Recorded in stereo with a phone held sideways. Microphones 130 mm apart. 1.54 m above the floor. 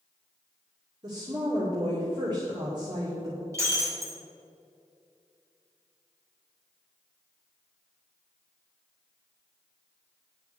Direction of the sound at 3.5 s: 25° right (ahead or behind).